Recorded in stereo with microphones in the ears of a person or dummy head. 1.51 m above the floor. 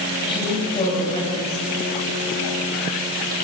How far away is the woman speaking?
About 8 m.